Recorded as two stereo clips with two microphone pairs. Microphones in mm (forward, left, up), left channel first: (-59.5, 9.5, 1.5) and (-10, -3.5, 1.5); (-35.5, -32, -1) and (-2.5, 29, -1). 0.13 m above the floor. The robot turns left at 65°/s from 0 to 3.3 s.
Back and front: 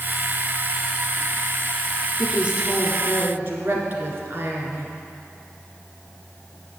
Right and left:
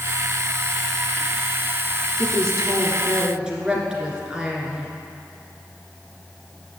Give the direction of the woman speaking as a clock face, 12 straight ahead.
10 o'clock.